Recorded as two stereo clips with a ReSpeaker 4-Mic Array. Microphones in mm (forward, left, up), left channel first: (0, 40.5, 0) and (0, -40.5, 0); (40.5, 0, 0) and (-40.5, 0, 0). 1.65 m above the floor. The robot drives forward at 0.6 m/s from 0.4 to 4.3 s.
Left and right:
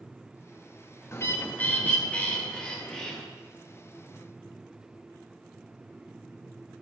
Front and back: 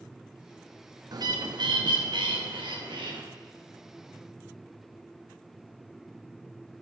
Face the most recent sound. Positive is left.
turn(degrees=170)